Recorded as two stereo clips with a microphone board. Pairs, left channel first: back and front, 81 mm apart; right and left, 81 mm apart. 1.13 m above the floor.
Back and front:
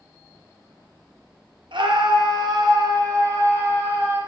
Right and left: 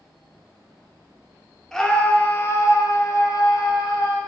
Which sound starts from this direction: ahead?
A scream, at 1.7 s.